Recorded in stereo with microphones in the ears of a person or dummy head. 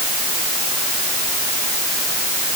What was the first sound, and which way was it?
Only background noise.